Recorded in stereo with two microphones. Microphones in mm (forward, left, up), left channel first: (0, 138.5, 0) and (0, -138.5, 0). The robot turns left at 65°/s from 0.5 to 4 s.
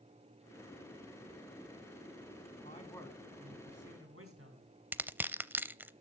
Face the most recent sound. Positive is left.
turn(degrees=-5)  # may be behind; listen again after turning